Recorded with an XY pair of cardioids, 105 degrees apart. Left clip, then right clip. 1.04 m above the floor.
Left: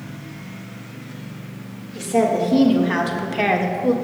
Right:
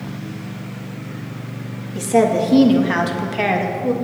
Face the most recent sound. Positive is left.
turn(degrees=25)